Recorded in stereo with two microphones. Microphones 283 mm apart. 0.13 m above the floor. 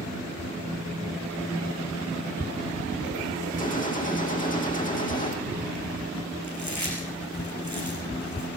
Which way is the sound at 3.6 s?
30° left (ahead or behind).